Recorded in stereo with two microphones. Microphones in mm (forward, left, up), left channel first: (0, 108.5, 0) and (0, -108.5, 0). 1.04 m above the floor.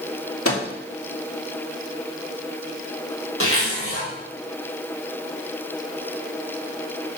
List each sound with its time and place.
0.5 s a microwave: 80° left, 2 m
3.4 s a zipper: 70° left (ahead or behind), 4 m